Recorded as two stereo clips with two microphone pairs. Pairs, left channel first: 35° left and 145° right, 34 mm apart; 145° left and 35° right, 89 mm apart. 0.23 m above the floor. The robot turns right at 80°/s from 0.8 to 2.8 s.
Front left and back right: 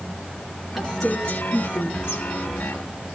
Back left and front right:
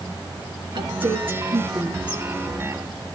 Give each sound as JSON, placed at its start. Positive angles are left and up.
{"t": 0.7, "sound": "a woman speaking", "azimuth_deg": -60, "distance_m": 3.5}